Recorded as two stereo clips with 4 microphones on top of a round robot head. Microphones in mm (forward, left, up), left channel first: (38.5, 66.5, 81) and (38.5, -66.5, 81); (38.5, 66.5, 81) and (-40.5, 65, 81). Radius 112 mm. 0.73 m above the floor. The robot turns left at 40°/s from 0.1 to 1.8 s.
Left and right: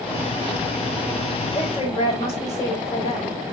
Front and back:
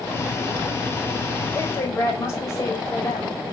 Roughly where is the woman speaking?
Ahead left.